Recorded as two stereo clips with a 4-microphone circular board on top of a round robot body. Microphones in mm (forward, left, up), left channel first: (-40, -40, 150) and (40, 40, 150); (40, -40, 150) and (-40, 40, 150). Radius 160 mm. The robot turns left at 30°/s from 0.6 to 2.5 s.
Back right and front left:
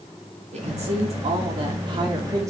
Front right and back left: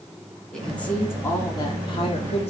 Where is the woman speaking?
40° left, 2.5 m; by 2.5 s 20° right, 2.5 m.